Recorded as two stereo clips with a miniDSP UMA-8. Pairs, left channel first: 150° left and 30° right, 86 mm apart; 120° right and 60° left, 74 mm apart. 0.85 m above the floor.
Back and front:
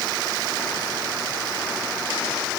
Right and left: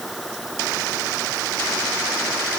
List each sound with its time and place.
Only background noise.